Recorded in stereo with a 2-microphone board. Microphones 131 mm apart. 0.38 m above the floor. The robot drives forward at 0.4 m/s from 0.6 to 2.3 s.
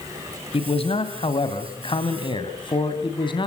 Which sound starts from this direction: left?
A man speaking, at 0.5 s.